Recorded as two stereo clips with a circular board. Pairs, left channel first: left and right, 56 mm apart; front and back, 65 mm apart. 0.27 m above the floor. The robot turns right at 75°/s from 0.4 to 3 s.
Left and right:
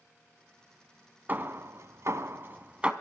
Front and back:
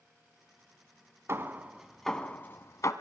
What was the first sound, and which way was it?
Hammering, 140° right.